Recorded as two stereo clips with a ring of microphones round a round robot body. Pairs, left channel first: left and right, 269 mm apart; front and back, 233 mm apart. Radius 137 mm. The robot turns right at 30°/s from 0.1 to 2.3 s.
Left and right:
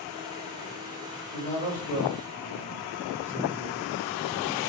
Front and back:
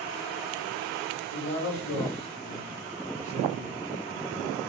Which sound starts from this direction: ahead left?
A man speaking, at 1.3 s.